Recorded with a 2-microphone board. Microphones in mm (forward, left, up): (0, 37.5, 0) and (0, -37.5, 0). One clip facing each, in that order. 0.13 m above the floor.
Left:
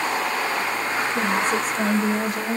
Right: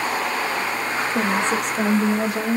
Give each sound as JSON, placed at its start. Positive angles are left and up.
{"t": 1.1, "sound": "a woman speaking", "side_deg": -75, "distance_m": 6.5}